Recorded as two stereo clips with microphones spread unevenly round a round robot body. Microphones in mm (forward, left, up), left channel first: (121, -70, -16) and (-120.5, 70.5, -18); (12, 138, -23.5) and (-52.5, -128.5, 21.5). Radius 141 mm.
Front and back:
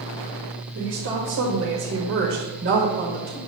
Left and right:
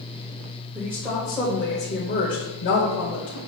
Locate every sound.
0.8 s a woman speaking: 170° left, 1.8 m; by 3.4 s 90° left, 1.8 m